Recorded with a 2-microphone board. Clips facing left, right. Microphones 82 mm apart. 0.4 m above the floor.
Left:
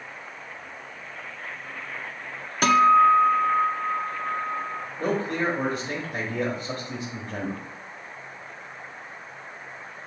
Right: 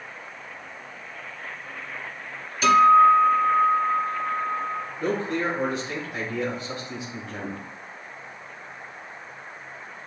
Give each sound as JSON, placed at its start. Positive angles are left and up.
{"t": 2.6, "sound": "a guitar", "side_deg": 55, "distance_m": 0.7}
{"t": 5.0, "sound": "a man speaking", "side_deg": 40, "distance_m": 1.6}